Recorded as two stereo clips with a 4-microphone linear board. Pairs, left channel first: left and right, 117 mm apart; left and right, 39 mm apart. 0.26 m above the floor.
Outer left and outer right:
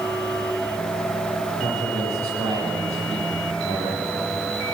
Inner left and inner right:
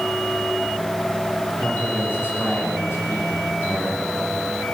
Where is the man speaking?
65° left (ahead or behind), 10 m.